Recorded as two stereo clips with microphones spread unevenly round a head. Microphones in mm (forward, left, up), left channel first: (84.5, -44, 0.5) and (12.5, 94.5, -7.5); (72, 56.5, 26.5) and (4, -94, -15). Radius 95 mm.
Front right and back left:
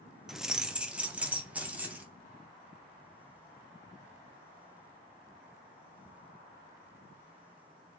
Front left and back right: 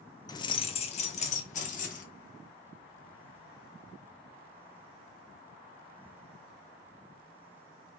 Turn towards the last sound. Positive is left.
turn(degrees=35)